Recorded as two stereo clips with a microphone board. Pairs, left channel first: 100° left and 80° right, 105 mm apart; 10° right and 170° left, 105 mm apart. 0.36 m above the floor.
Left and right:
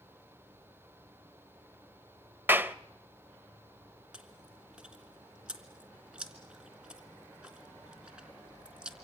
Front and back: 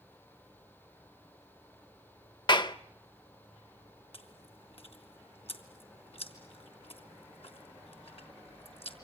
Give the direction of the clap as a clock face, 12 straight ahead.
1 o'clock.